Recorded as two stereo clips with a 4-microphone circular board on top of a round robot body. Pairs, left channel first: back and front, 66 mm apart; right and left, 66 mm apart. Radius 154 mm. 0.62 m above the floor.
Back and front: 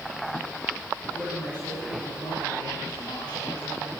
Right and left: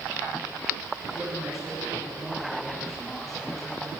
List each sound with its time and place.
1.1 s a man speaking: 175° left, 6.5 m; by 3.9 s 170° right, 4.5 m